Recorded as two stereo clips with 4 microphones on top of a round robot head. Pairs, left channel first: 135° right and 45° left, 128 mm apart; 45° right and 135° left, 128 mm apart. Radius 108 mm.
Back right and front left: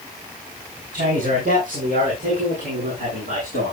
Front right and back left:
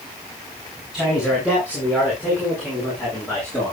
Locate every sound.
0.9 s a man speaking: 50° left, 7.5 m; by 3.7 s 70° left, 9.5 m